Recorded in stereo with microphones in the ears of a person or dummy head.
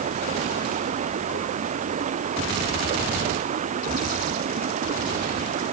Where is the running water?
45° right (ahead or behind).